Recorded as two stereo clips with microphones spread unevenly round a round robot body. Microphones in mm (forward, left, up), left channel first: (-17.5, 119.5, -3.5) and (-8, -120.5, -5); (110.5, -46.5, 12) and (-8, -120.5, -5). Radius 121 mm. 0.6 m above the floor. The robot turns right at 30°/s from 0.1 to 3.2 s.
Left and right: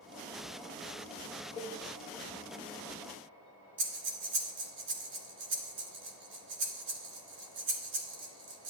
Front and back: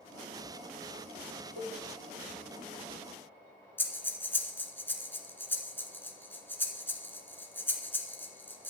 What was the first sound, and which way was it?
A cowbell, 155° left.